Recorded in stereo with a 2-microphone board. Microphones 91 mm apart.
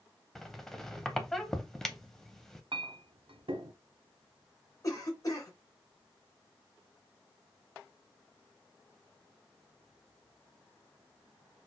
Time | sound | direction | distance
0.3 | a squeak | 5° left (ahead or behind) | 0.5 m
2.7 | a clink | 75° right (ahead or behind) | 0.6 m
4.8 | a cough | 40° left (ahead or behind) | 1.6 m